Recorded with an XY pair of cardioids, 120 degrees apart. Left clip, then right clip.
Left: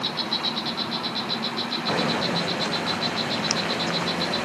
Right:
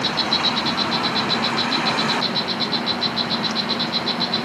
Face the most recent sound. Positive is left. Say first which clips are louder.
# right 6 dB
turn(degrees=-30)